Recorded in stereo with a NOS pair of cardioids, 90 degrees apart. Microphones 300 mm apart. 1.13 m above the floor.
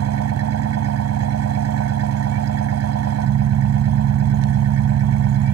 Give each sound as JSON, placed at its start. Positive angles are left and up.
{"t": 0.0, "sound": "an engine running", "azimuth_deg": -60}